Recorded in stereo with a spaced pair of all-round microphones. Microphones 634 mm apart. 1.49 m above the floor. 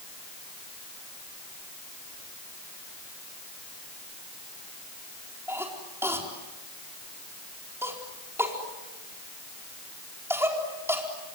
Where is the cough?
5° right (ahead or behind), 4.5 m.